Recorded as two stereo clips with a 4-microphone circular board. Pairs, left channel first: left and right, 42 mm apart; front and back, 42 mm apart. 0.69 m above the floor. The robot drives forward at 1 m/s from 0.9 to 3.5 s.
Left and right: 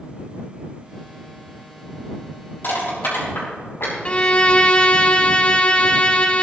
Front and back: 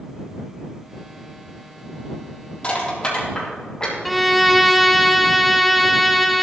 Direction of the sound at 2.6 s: 60° left.